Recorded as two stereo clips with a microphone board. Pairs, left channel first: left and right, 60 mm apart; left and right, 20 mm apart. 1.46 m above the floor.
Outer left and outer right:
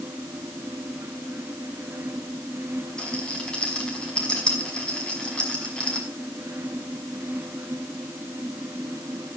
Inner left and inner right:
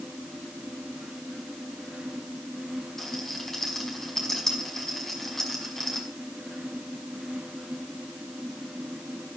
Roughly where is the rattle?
Centre.